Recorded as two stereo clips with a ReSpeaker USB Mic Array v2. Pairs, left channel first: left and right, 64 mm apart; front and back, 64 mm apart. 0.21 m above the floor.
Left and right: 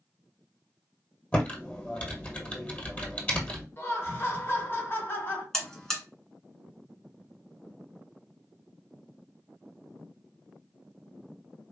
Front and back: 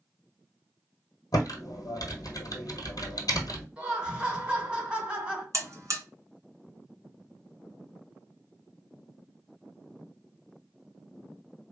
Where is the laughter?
115° left, 1.2 m.